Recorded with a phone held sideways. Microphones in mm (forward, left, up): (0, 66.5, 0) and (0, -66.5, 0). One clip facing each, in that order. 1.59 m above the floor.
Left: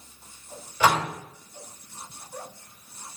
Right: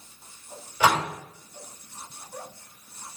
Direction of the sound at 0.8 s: 10° right (ahead or behind).